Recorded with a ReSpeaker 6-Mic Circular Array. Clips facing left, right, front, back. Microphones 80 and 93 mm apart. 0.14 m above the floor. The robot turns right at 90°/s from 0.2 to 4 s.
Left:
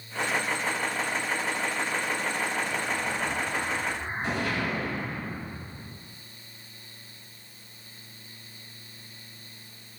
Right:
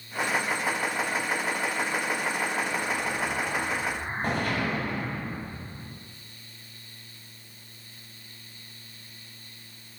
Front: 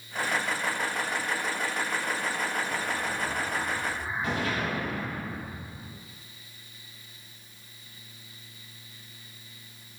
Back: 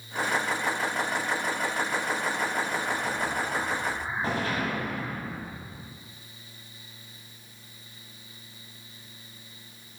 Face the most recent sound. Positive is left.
turn(degrees=-125)